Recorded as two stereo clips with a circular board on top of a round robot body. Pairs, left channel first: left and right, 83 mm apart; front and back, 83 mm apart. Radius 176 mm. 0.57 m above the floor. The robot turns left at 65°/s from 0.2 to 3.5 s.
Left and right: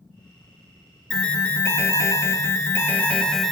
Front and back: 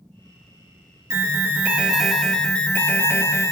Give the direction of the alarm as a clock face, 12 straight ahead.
7 o'clock.